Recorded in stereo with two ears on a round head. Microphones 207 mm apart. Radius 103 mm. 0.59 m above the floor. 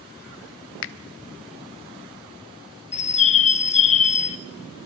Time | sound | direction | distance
0.8 | a finger snap | 55° left (ahead or behind) | 0.7 m
2.9 | a bird | 30° left (ahead or behind) | 0.9 m